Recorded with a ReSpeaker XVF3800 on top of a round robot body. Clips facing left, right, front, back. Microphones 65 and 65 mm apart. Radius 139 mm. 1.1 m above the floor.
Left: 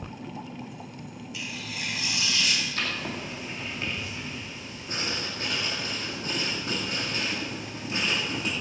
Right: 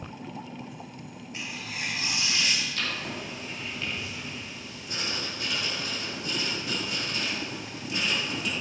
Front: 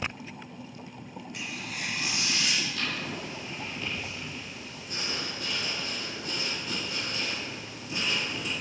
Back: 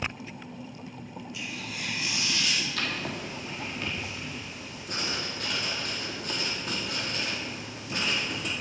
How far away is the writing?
About 2.5 m.